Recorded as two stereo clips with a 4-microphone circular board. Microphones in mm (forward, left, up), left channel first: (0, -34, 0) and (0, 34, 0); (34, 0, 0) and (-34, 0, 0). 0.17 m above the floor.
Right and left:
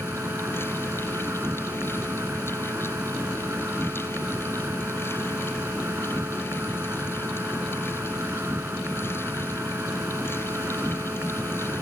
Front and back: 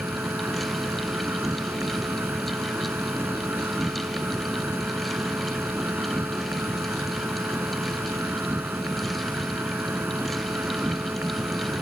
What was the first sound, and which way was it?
An insect, 130° left.